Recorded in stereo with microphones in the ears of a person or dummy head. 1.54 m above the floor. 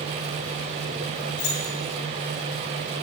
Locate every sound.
1.4 s keys jangling: 85° left, 4 m